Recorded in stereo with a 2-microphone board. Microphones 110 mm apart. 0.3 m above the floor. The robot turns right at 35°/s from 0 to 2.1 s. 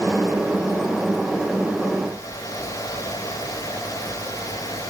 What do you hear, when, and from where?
Only background noise.